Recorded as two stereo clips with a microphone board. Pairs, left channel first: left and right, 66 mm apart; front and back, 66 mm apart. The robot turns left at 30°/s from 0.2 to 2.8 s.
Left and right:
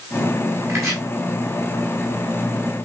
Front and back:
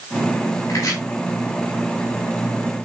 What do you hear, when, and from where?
0.7 s chopping: 45° right, 8 m; by 1.0 s 50° right, 8 m